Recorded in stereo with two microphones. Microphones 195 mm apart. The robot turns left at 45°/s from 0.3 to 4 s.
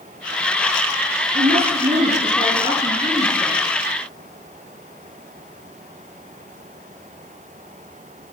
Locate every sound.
1.3 s a woman speaking: 105° right, 5 m; by 3.6 s 155° left, 5 m